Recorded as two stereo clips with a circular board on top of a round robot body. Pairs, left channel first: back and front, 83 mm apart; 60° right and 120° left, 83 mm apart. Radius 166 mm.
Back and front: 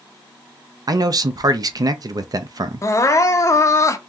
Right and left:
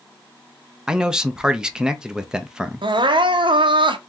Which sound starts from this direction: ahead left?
A man speaking, at 0.9 s.